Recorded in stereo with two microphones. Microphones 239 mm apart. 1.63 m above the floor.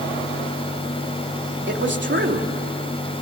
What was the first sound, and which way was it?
A man speaking, 50° right (ahead or behind).